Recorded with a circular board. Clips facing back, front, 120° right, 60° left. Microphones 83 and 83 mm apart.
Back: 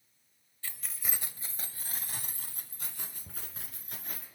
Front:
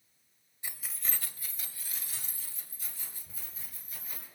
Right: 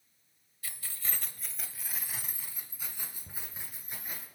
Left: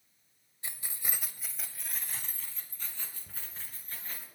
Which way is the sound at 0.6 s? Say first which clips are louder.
Even, left 1 dB; 40° left.